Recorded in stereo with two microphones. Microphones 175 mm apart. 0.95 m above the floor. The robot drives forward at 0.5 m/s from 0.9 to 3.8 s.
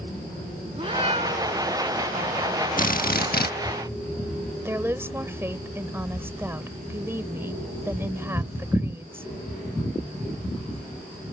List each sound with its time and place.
0.8 s a cat meowing: 35° right (ahead or behind); by 1.7 s 40° right (ahead or behind)
2.8 s a drill: 50° left (ahead or behind); by 3.5 s 65° left (ahead or behind)
4.7 s a woman speaking: 15° right (ahead or behind)